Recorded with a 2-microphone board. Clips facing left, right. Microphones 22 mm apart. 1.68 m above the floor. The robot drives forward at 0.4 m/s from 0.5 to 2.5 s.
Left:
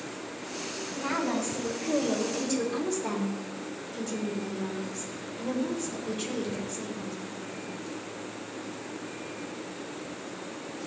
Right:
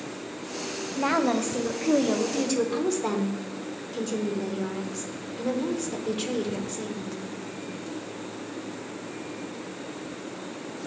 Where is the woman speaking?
75° right (ahead or behind), 0.8 m; by 7.2 s 45° right (ahead or behind), 1.0 m.